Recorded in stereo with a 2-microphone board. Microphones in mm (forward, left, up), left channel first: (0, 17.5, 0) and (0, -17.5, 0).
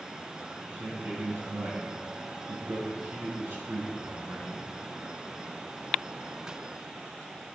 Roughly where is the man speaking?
Right.